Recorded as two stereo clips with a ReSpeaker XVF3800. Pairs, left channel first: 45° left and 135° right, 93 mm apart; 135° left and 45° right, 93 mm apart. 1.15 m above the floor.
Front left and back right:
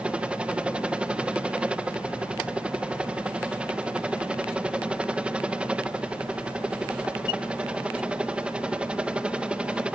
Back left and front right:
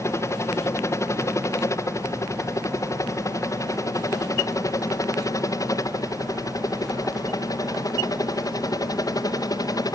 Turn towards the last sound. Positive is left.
turn(degrees=150)